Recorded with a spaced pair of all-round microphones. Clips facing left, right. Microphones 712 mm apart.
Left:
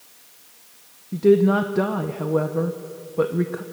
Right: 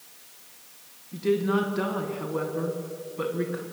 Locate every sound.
1.1 s a woman speaking: 65° left (ahead or behind), 1.2 m